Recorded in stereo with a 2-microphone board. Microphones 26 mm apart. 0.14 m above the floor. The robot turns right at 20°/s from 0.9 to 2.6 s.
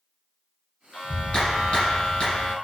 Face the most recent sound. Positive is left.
turn(degrees=85)